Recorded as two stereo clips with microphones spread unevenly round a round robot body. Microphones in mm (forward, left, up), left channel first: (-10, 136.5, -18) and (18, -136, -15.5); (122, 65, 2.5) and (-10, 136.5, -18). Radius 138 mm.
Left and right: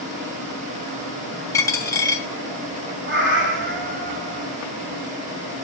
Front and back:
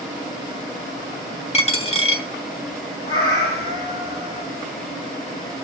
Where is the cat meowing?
35° right, 3 m.